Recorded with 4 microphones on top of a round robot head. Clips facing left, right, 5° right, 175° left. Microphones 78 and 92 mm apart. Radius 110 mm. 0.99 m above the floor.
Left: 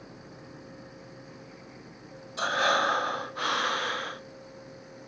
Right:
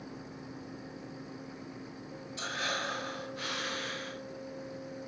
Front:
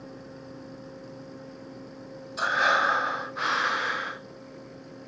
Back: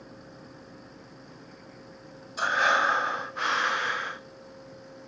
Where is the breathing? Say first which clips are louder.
Left 11 dB, even; 85° left, 0.8 m.